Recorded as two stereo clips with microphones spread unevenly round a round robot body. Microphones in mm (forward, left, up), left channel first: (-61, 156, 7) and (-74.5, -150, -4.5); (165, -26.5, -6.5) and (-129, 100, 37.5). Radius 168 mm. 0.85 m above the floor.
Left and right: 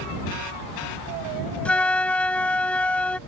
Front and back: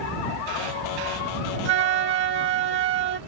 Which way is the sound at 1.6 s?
170° left.